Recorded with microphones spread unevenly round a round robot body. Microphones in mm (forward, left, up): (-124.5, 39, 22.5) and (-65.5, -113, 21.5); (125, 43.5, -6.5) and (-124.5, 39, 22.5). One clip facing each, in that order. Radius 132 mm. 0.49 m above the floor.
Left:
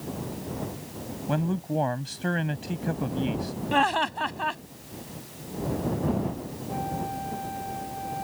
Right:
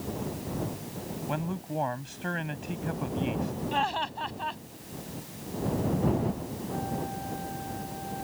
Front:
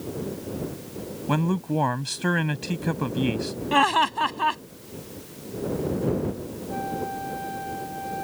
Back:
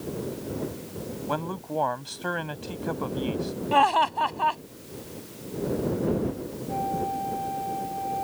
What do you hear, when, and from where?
1.3 s a man speaking: 50° left
3.7 s laughter: 60° left
6.7 s a flute: 60° left